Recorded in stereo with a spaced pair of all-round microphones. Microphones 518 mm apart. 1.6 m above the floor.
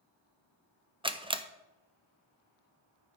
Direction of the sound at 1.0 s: 10° right (ahead or behind).